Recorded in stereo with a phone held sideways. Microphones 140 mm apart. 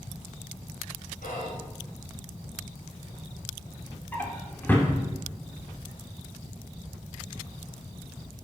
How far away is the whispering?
About 3 m.